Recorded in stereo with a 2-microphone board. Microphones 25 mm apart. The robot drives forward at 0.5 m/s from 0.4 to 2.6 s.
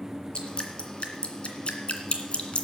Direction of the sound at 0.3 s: 45° left (ahead or behind).